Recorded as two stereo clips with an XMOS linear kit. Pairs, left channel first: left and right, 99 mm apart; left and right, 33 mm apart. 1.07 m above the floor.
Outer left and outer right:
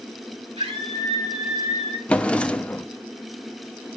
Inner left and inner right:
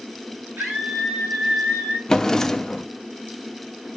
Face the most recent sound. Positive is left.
turn(degrees=10)  # may be behind; listen again after turning